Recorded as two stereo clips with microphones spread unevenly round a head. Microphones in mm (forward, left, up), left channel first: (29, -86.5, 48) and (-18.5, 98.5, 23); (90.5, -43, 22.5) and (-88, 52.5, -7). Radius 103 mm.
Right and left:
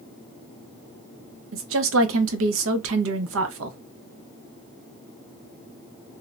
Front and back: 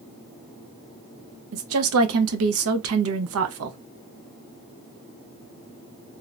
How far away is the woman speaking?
About 0.5 m.